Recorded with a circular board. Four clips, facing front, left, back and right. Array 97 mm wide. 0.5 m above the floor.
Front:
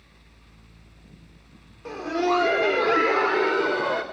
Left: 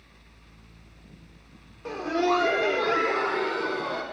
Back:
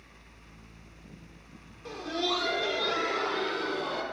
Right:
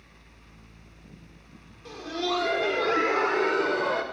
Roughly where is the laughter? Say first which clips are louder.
Left 6 dB, front 8 dB; ahead left.